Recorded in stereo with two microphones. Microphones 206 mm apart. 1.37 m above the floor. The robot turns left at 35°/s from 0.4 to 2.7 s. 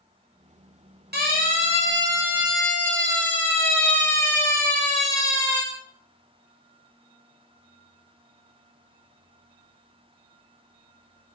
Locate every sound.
1.1 s a siren: 55° right (ahead or behind), 9 m; by 5.6 s 20° left (ahead or behind), 7.5 m